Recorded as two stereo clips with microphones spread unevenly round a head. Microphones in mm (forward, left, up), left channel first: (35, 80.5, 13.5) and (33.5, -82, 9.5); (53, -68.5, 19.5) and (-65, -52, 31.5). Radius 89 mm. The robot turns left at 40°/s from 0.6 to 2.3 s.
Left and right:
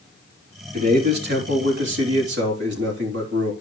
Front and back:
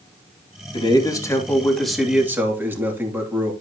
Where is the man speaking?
50° right, 3 m; by 3.5 s 115° right, 3 m.